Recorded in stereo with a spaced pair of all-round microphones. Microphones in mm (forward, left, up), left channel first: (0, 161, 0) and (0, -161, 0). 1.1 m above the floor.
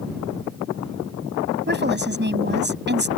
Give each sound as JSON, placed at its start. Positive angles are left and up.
{"t": 1.7, "sound": "a woman speaking", "side_deg": -30}